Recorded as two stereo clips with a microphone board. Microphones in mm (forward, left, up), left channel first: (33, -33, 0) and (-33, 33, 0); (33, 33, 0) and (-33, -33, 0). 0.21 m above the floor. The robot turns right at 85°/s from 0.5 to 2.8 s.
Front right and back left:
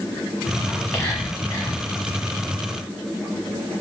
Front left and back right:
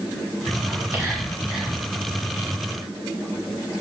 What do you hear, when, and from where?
0.7 s whispering: 125° right, 1.1 m; by 1.8 s 35° right, 1.1 m